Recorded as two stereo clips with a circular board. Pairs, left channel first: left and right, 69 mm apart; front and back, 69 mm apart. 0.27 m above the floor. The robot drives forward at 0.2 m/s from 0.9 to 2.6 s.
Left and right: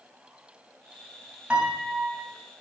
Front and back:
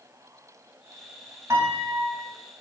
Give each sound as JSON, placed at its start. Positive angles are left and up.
{"t": 1.5, "sound": "a piano", "azimuth_deg": -155, "distance_m": 0.8}